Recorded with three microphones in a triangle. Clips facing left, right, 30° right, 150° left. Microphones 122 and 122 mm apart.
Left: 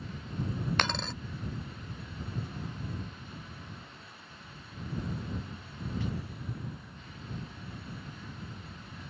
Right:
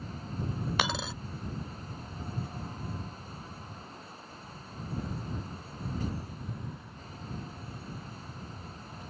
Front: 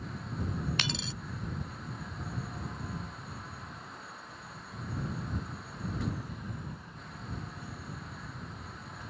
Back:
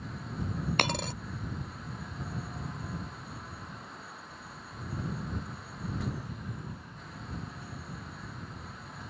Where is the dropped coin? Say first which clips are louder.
Right 3 dB, back 6 dB; 175° right.